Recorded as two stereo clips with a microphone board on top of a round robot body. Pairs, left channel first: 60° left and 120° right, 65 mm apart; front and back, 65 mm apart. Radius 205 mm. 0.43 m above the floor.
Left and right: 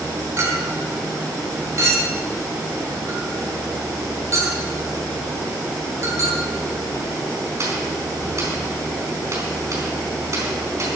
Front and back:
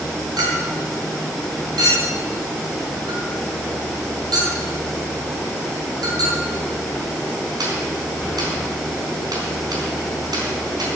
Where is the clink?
165° right, 4 m.